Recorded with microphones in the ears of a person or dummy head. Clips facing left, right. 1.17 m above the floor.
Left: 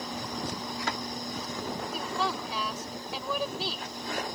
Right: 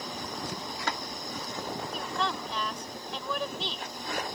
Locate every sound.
1.9 s a woman speaking: 10° left (ahead or behind)